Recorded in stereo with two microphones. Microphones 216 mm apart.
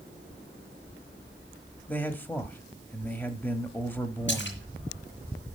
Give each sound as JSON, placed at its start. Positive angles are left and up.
{"t": 1.9, "sound": "a man speaking", "side_deg": 10, "distance_m": 1.0}
{"t": 4.3, "sound": "a splash", "side_deg": 65, "distance_m": 3.5}